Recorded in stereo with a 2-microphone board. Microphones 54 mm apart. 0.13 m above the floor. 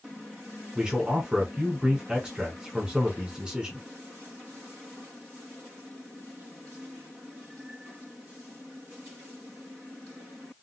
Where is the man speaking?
15° right (ahead or behind), 1.2 m.